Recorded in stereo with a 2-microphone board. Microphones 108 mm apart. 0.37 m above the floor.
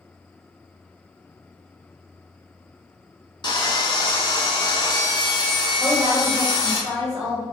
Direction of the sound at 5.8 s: 15° right (ahead or behind).